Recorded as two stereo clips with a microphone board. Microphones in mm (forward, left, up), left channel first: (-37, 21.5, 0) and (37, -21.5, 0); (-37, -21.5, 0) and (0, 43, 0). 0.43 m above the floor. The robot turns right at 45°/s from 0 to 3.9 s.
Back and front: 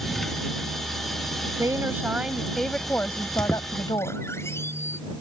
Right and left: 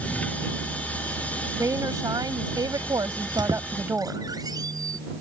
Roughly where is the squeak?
Ahead left.